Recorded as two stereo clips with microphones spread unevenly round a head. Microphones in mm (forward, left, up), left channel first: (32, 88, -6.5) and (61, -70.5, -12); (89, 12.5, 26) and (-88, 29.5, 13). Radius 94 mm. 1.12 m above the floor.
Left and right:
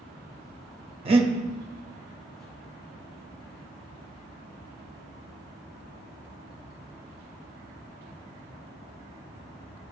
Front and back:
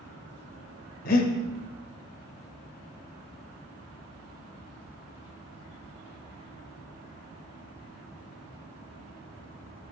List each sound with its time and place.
1.1 s breathing: 30° right, 0.8 m